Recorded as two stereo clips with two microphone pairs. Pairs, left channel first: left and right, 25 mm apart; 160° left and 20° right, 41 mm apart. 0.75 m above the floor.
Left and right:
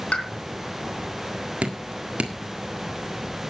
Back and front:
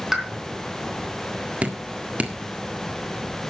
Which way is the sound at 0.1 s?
60° left.